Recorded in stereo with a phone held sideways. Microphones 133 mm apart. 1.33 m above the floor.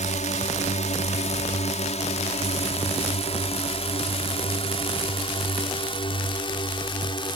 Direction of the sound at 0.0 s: 65° left (ahead or behind).